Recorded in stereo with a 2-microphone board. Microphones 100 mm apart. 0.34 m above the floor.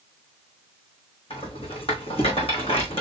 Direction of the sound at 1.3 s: 65° left (ahead or behind).